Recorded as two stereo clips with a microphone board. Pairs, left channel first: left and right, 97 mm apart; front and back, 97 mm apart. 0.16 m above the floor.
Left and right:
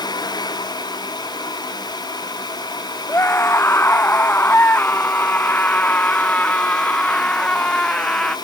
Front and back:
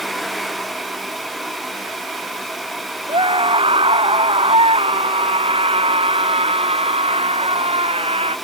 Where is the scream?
155° left; by 8.3 s 170° left.